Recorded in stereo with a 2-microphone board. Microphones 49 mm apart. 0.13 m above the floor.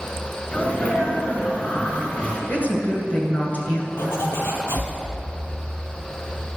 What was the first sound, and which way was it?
A sneeze, 25° left (ahead or behind).